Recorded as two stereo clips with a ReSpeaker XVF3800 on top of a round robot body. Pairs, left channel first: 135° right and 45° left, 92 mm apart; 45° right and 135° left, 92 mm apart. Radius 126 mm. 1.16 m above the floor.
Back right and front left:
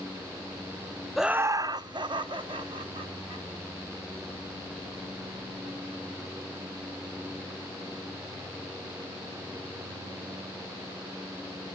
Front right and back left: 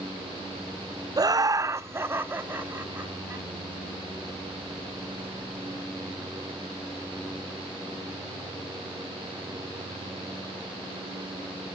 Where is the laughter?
140° left, 0.5 m; by 3.5 s 65° left, 2.5 m.